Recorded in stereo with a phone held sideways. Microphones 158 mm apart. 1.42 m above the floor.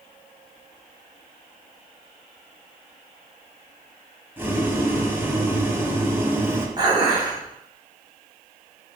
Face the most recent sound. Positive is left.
turn(degrees=-30)  # may be behind; listen again after turning